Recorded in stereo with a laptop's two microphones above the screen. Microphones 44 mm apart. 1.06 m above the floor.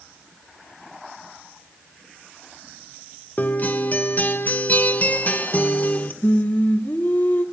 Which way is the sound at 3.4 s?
40° left (ahead or behind).